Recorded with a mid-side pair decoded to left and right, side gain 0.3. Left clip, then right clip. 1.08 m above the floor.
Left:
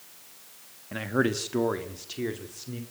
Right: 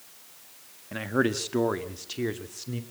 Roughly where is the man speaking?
Ahead.